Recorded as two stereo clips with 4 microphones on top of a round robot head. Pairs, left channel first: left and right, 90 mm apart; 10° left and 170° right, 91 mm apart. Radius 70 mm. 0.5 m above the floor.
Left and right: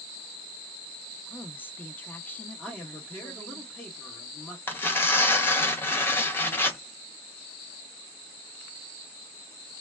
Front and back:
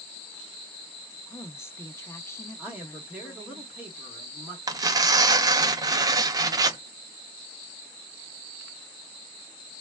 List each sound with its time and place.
1.3 s a woman speaking: 40° left, 0.7 m
2.6 s a man speaking: 140° left, 1.3 m
4.7 s tearing paper: 150° left, 0.6 m